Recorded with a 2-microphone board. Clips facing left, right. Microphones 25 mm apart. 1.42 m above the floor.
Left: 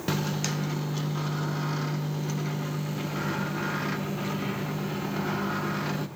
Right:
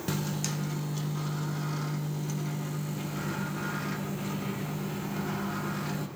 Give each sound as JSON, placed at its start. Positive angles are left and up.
{"t": 0.1, "sound": "a microwave", "side_deg": 25, "distance_m": 0.6}